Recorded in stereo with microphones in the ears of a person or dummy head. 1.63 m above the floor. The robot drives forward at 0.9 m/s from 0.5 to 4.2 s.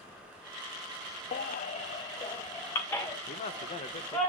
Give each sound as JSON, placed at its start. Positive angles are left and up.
{"t": 1.3, "sound": "a baby crying", "side_deg": 35, "distance_m": 0.6}
{"t": 3.3, "sound": "a man speaking", "side_deg": 40, "distance_m": 0.9}